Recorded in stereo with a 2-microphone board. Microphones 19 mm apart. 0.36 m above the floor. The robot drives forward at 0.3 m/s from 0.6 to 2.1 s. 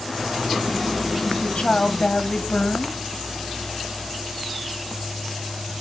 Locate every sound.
1.2 s a woman speaking: 60° left (ahead or behind), 1.8 m